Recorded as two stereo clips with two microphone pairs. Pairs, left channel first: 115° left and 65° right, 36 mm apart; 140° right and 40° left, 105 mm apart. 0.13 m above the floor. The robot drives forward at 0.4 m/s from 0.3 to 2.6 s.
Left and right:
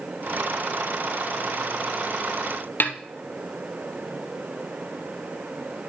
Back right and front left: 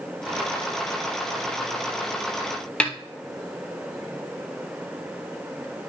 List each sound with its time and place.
2.8 s a snare drum: 140° left, 0.9 m